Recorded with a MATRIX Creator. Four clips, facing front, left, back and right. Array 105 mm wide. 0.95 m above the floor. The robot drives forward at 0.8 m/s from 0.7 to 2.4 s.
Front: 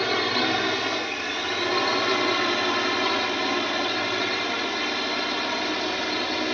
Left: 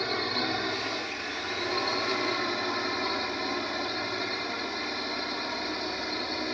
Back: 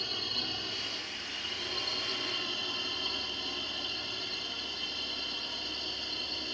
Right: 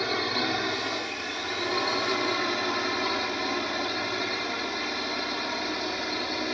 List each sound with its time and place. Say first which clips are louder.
0.0 s a drone: right 2 dB, front 18 dB; 10° right